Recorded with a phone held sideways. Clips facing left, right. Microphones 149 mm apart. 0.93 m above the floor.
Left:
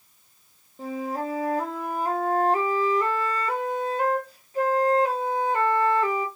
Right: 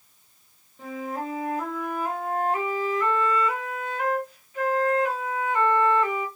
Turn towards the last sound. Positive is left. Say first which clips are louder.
# left 2 dB
turn(degrees=35)  # may be behind; listen again after turning